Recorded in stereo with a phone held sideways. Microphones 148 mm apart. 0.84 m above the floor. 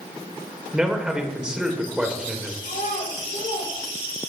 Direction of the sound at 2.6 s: 65° left (ahead or behind).